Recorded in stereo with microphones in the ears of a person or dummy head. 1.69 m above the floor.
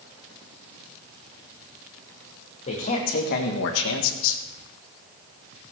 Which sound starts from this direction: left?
A man speaking, at 2.7 s.